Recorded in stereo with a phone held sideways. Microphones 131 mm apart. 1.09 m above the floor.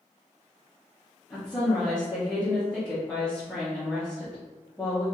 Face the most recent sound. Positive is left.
turn(degrees=5)  # may be behind; listen again after turning